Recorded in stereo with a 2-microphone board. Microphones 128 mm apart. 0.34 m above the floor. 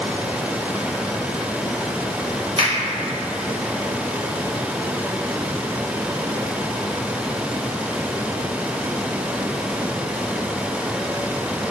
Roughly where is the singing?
I don't hear singing.